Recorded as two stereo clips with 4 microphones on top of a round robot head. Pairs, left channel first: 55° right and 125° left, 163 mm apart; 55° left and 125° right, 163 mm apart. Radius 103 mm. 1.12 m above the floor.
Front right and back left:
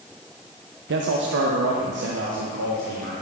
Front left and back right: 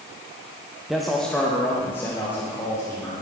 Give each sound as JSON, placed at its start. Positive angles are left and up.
{"t": 0.9, "sound": "a man speaking", "azimuth_deg": 145, "distance_m": 0.7}